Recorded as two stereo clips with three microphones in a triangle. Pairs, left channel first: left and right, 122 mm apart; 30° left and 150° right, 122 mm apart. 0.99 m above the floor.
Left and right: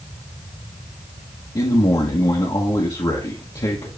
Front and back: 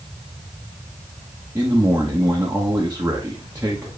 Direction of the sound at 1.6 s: 140° left.